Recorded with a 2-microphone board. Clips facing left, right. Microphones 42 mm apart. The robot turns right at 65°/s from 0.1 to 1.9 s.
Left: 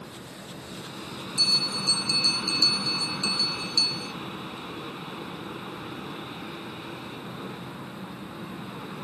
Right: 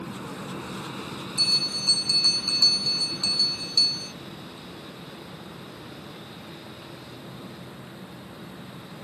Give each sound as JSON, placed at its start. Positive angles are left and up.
{"t": 0.0, "sound": "an aircraft", "azimuth_deg": -75}
{"t": 1.4, "sound": "a bell", "azimuth_deg": -5}